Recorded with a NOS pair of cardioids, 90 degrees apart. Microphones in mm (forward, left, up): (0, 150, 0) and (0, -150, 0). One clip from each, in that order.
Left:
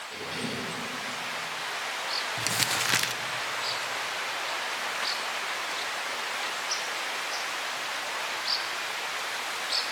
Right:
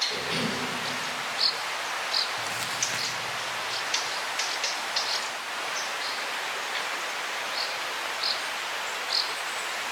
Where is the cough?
60° right, 3.5 m.